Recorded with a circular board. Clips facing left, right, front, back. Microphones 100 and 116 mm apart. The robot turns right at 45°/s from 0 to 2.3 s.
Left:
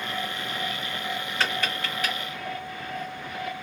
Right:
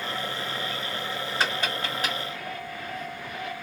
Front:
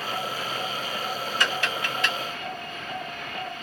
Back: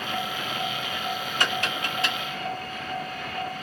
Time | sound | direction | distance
1.4 | tapping | 165° right | 1.8 m